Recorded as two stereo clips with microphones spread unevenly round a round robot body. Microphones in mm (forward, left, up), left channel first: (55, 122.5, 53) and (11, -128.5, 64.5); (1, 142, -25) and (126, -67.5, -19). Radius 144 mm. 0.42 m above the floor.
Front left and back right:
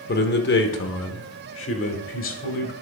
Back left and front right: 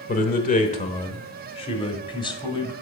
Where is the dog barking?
I don't hear a dog barking.